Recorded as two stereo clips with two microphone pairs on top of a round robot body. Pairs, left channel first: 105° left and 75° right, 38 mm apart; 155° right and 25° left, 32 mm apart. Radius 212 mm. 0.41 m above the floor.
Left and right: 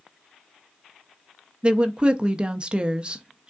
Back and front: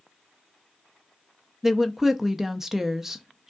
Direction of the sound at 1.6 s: 45° right.